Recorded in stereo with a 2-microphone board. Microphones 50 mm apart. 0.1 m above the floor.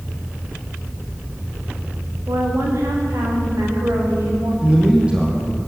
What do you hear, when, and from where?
2.3 s a woman speaking: 80° right, 8 m; by 4.5 s 85° right, 11 m
4.6 s a man speaking: 20° right (ahead or behind), 5 m